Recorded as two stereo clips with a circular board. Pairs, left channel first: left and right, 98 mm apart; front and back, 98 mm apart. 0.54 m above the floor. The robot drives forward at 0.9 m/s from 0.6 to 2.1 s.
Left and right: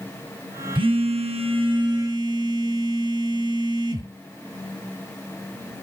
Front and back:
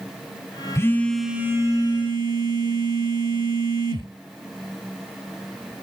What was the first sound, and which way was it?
A phone buzzing, 60° right.